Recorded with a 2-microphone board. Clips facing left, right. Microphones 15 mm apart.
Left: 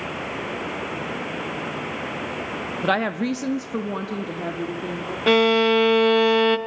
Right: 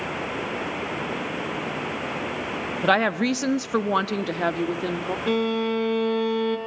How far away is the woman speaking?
About 0.7 m.